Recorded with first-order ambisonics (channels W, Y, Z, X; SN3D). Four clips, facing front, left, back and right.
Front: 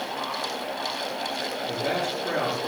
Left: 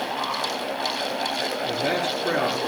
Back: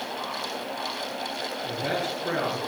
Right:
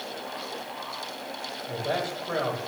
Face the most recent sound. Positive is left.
turn(degrees=100)